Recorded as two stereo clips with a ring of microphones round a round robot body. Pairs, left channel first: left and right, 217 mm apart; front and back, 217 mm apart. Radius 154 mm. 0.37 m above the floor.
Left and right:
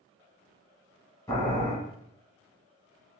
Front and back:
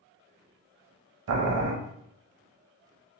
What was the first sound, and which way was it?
Boiling, 170° left.